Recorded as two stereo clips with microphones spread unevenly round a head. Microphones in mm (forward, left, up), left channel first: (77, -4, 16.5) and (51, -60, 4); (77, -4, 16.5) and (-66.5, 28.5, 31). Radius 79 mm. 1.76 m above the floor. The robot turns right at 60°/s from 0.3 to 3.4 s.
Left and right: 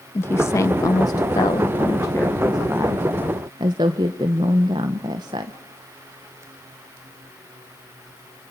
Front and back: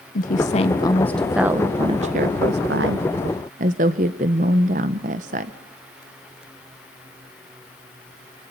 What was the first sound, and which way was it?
A woman speaking, 20° left.